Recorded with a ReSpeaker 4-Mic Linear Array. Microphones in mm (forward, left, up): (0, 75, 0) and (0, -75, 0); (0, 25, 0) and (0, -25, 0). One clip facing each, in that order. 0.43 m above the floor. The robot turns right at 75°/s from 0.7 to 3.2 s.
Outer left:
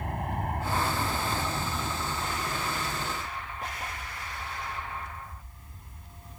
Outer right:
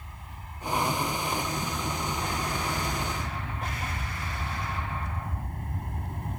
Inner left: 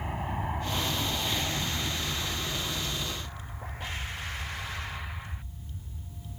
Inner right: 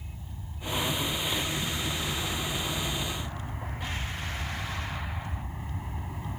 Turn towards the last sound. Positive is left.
turn(degrees=-100)